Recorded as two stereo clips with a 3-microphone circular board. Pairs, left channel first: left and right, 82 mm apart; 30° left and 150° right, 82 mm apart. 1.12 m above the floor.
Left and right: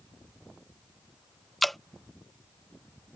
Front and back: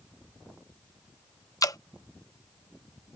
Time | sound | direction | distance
1.6 | dripping | 5° left | ?